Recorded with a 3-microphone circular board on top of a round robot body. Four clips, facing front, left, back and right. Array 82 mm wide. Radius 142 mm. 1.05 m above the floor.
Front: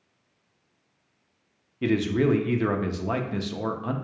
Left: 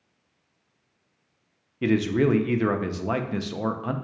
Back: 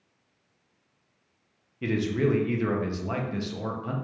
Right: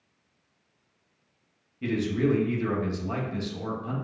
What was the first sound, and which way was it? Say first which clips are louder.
A man speaking: left 4 dB, front 3 dB; 70° left.